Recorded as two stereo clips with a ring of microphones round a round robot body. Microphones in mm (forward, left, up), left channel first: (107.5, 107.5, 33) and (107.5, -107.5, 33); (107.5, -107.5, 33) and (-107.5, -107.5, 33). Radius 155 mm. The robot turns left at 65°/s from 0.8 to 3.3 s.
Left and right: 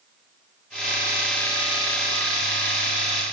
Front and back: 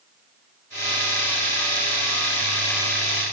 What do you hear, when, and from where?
Only background noise.